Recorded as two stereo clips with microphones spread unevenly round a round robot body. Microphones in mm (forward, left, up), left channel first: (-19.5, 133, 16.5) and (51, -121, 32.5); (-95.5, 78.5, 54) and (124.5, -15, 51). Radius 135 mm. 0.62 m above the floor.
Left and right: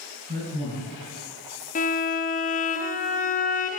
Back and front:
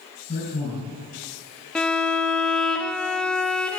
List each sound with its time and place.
0.3 s a man speaking: 145° right, 6 m
1.8 s a violin: 70° left, 1.1 m